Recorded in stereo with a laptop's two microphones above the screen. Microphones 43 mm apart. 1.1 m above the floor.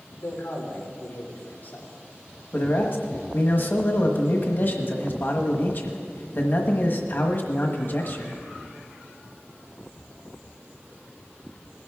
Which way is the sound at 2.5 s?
50° left (ahead or behind).